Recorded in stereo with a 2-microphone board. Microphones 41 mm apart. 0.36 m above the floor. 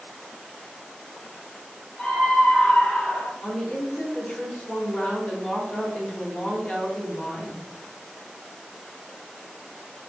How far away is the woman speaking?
About 1.3 m.